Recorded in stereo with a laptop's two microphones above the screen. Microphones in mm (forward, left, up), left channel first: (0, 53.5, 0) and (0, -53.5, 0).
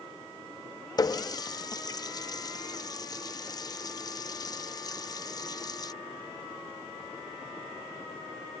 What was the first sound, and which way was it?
A running tap, 35° left (ahead or behind).